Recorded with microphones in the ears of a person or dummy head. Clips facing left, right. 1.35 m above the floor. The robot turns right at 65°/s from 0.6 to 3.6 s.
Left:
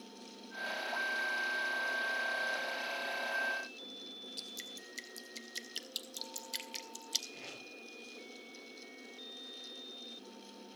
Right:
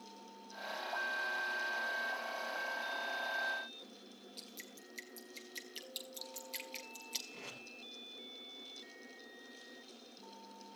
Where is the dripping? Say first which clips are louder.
Left 2 dB; 10° left (ahead or behind), 1.9 m.